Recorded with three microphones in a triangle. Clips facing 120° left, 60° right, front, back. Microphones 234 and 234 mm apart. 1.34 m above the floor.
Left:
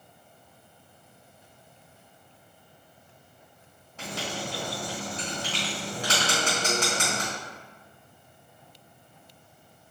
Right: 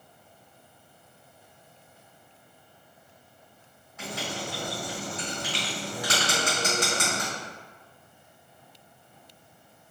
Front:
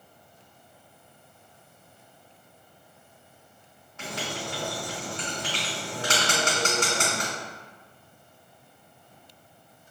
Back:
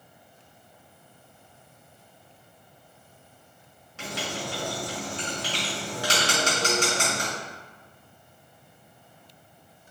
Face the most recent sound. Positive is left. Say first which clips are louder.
# even, back 1 dB
turn(degrees=180)